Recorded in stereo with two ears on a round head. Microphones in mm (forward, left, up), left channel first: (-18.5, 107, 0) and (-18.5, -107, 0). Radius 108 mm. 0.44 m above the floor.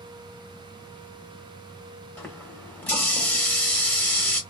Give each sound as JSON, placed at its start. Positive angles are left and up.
{"t": 2.2, "sound": "a running tap", "side_deg": 5, "distance_m": 0.9}